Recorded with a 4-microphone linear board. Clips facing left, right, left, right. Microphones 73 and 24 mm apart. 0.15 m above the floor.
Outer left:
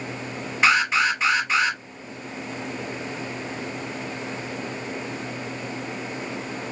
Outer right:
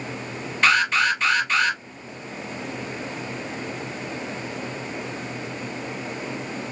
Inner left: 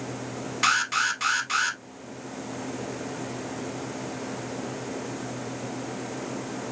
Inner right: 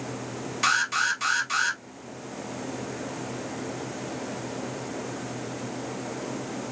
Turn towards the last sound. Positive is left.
turn(degrees=15)  # may be behind; listen again after turning